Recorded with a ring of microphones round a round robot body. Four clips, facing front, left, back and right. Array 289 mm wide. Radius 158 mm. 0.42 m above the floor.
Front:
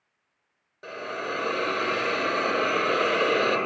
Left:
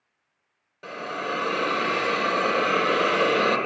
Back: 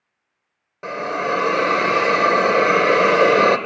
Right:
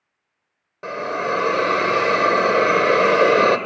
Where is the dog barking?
No dog barking in this recording.